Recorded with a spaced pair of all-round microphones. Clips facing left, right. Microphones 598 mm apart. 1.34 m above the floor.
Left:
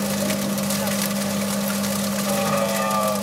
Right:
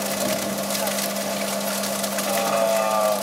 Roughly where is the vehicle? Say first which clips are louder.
Left 2 dB; left.